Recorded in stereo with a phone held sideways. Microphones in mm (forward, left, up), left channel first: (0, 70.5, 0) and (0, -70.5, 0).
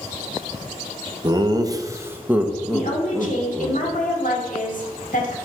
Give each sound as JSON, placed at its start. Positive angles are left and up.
{"t": 1.2, "sound": "laughter", "side_deg": -30, "distance_m": 0.8}
{"t": 2.7, "sound": "a woman speaking", "side_deg": 70, "distance_m": 1.5}